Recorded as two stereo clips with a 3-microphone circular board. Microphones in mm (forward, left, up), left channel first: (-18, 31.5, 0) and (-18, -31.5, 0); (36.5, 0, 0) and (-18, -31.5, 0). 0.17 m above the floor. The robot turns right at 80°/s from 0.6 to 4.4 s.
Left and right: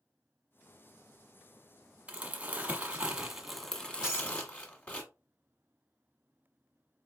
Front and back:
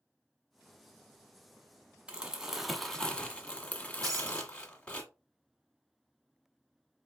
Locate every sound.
2.1 s crumpling: 110° right, 1.0 m; by 5.0 s 75° left, 1.0 m
4.0 s breaking glass: 165° right, 3 m; by 4.4 s 135° right, 3 m